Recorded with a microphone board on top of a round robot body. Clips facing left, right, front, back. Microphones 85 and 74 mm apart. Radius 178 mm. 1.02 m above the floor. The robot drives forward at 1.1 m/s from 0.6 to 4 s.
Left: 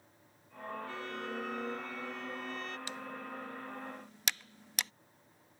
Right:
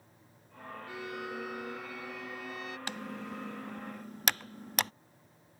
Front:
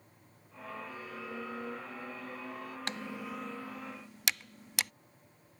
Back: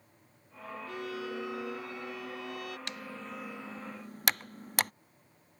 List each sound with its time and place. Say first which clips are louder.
0.9 s a violin: right 1 dB, back 5 dB; 170° right
2.9 s typing on a keyboard: right 3 dB, front 2 dB; 55° right; by 4.9 s 135° right